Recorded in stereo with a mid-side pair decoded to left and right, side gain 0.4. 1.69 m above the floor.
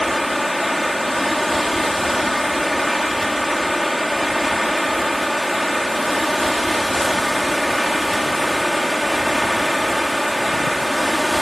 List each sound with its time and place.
0.0 s running water: 5° left